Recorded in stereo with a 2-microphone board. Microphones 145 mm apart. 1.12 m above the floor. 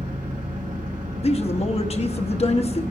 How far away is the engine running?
About 3 m.